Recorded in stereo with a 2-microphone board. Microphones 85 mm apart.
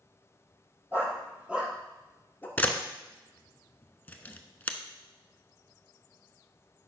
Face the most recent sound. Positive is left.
turn(degrees=20)  # may be behind; listen again after turning